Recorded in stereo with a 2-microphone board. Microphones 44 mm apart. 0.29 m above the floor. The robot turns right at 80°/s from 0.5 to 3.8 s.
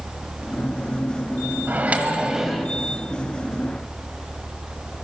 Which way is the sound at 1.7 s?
75° right.